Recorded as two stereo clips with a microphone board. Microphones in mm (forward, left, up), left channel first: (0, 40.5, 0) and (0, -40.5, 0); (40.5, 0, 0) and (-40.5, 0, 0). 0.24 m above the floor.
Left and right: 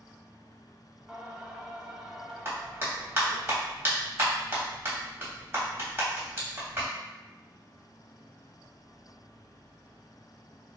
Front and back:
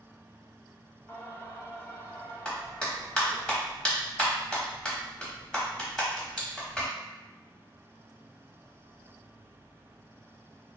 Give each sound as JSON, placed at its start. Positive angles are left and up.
{"t": 1.1, "sound": "singing", "azimuth_deg": -10, "distance_m": 0.5}
{"t": 2.5, "sound": "a clap", "azimuth_deg": -70, "distance_m": 0.9}